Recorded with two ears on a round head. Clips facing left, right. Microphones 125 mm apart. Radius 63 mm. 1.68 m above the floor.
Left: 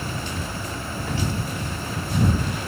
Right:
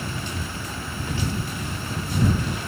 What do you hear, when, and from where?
Only background noise.